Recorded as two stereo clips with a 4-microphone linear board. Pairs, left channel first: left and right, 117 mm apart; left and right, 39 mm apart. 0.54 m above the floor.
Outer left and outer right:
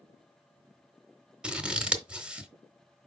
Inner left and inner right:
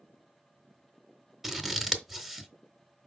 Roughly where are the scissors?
Centre.